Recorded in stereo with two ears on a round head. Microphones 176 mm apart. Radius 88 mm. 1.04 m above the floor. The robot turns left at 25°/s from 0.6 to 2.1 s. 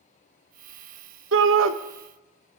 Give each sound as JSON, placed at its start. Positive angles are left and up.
{"t": 1.3, "sound": "a shout", "side_deg": -70, "distance_m": 0.9}